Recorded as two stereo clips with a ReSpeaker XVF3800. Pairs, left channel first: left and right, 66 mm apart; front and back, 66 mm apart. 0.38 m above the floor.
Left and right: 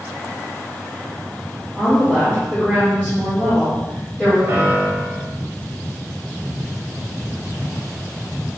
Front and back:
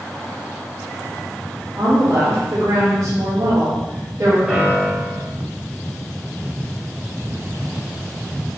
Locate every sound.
1.8 s a woman speaking: 160° right, 1.9 m
4.5 s a piano: 110° right, 1.2 m